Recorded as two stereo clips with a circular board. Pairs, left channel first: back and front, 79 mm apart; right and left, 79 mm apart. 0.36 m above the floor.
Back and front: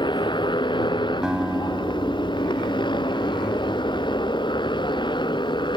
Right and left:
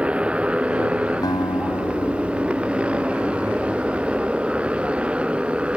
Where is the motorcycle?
165° left.